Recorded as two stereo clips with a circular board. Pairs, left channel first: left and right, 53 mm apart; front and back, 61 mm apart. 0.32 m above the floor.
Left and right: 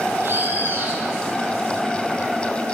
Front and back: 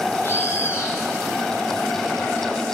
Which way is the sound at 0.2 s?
50° right.